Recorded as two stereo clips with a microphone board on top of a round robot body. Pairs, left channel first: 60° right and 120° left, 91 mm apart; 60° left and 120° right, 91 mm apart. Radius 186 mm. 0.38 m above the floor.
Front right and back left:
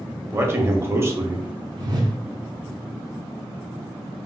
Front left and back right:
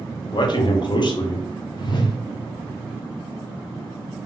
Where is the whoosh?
85° left, 1.0 m.